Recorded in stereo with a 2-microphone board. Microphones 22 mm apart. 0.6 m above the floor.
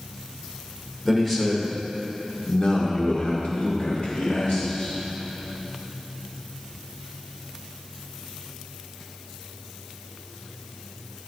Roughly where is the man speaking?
Centre.